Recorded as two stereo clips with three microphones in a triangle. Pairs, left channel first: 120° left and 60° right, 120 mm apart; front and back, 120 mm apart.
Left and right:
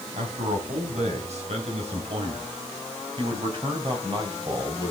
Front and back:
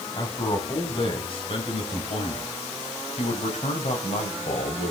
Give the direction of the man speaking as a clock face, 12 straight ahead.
2 o'clock.